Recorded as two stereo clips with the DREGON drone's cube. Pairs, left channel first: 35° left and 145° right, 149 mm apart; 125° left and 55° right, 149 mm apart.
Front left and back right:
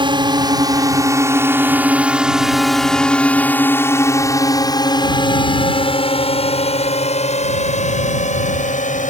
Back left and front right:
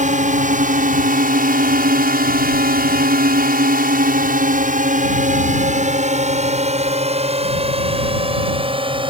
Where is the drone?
90° right; by 9.1 s straight ahead.